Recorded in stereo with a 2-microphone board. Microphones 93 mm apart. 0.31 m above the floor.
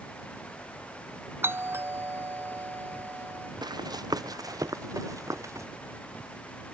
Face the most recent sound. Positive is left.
turn(degrees=-30)  # may be behind; listen again after turning